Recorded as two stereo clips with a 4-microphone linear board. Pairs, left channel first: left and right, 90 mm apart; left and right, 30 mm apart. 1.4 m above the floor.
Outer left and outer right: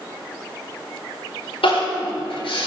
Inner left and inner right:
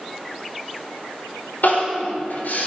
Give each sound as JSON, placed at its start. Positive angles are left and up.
{"t": 1.6, "sound": "crying", "side_deg": 90, "distance_m": 5.0}